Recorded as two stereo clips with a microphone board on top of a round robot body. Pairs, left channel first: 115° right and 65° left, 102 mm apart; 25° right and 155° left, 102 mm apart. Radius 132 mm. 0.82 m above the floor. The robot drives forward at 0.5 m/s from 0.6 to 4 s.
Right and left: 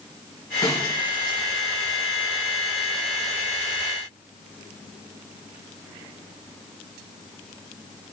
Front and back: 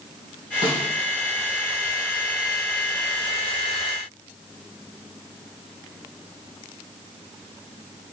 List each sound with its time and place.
0.6 s a snare drum: 55° right, 3.5 m